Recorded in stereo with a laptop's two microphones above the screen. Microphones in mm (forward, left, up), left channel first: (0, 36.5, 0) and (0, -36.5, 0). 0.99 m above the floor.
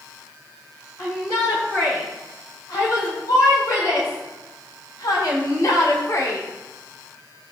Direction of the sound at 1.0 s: 50° left (ahead or behind).